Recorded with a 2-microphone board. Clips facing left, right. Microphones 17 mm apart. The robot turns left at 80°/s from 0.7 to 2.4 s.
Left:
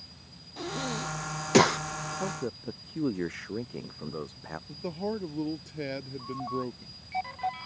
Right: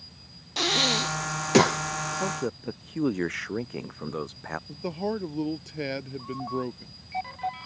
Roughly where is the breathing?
Right.